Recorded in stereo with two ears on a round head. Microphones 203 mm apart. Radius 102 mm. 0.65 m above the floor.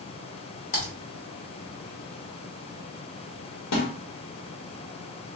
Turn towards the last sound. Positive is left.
turn(degrees=75)  # may be behind; listen again after turning